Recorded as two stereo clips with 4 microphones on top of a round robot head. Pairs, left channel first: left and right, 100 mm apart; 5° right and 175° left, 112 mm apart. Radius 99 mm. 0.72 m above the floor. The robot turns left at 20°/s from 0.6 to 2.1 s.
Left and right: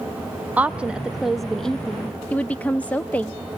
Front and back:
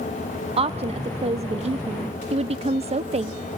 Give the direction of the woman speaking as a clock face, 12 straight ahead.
5 o'clock.